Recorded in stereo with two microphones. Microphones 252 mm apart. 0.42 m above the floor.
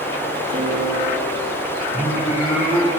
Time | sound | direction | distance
0.5 | a piano | 50° right (ahead or behind) | 4.5 m
1.9 | singing | 10° right (ahead or behind) | 2.5 m